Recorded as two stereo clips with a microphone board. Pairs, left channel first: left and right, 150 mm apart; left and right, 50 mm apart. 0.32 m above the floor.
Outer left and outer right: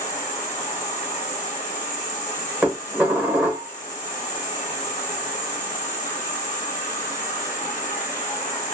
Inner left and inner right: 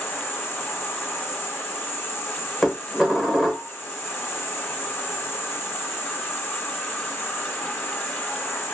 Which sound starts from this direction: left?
An insect, at 0.0 s.